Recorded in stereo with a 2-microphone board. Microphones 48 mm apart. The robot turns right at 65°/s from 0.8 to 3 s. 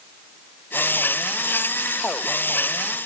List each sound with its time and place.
Only background noise.